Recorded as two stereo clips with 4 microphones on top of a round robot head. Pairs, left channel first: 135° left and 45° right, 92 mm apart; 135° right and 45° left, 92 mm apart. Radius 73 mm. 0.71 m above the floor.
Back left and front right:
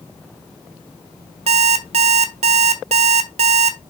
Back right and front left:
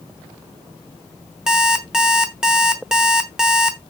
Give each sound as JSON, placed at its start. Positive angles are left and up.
{"t": 1.5, "sound": "an alarm clock", "azimuth_deg": -40, "distance_m": 1.2}